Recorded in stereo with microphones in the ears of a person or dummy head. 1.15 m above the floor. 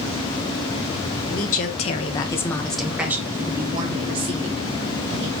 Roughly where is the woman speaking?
Left.